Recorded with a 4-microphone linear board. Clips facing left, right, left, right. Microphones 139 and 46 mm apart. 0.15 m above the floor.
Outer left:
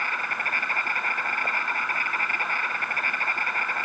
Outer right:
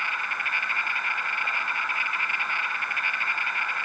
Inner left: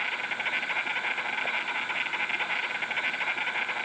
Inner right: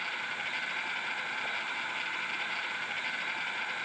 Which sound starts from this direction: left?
An insect, at 0.0 s.